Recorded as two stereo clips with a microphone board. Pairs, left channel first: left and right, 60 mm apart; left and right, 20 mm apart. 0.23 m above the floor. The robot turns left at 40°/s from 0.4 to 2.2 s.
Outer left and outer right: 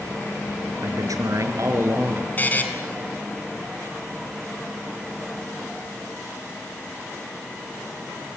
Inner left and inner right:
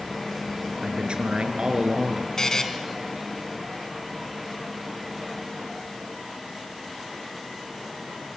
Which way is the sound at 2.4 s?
30° left (ahead or behind).